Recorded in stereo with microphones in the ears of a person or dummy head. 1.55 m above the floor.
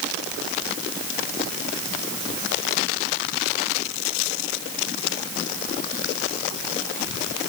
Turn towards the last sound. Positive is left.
No sound to turn to.